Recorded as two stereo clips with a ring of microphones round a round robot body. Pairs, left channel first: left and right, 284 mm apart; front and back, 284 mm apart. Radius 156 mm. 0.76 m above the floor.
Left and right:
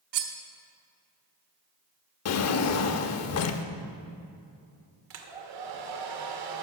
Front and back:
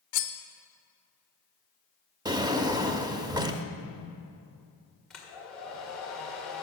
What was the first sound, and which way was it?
Cutlery clinking, 45° right.